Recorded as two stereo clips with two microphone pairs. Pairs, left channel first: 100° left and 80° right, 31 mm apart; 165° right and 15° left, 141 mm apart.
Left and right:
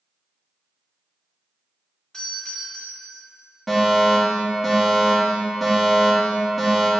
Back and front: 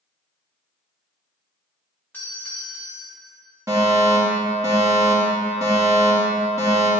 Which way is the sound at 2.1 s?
125° left.